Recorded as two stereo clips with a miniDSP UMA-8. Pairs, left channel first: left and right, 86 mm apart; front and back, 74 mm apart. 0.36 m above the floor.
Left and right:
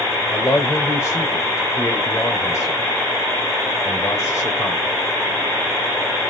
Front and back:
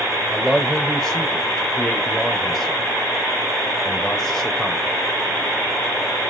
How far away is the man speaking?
About 1.0 m.